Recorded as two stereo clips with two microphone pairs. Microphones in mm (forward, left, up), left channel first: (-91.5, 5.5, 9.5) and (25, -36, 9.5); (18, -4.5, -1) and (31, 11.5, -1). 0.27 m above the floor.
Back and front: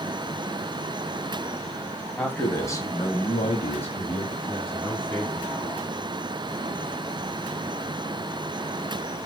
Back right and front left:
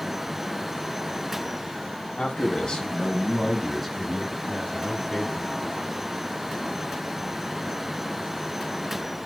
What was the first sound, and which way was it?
A man speaking, 120° right.